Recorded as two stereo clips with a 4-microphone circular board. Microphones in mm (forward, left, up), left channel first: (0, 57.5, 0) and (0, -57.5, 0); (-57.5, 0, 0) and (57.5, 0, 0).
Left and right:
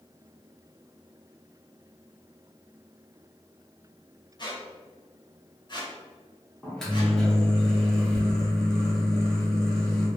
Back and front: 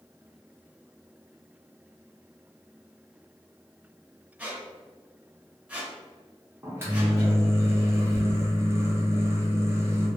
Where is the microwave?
15° left, 0.7 m.